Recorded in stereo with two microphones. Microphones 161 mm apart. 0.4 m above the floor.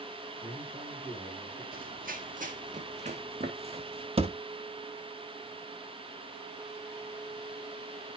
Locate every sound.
0.4 s a man speaking: 15° right (ahead or behind), 6 m
1.7 s running footsteps: 65° right (ahead or behind), 0.9 m; by 4.1 s 35° right (ahead or behind), 1.9 m
4.2 s a thud: 35° right (ahead or behind), 0.7 m